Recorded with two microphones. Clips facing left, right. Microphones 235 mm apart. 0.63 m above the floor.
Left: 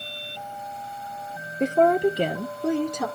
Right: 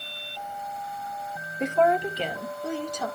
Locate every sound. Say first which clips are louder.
1.6 s a woman speaking: left 4 dB; 30° left (ahead or behind), 0.7 m; by 3.1 s 65° left (ahead or behind), 1.4 m